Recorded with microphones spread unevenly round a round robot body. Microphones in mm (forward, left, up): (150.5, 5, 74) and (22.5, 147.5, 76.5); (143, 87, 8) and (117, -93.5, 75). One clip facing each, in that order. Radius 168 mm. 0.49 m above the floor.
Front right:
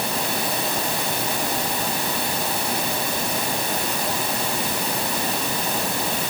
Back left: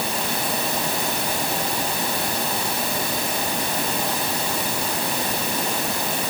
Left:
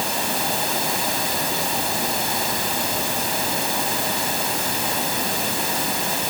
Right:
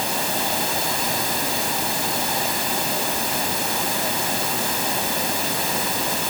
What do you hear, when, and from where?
Only background noise.